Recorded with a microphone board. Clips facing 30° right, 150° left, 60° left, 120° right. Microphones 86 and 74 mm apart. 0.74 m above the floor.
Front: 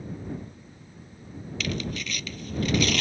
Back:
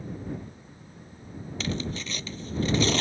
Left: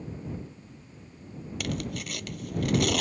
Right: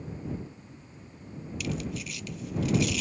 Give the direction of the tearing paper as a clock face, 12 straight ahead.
9 o'clock.